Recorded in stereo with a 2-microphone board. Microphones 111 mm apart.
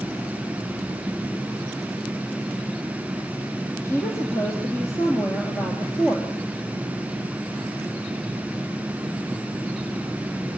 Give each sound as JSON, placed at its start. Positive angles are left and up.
{"t": 3.8, "sound": "a woman speaking", "side_deg": 25, "distance_m": 2.5}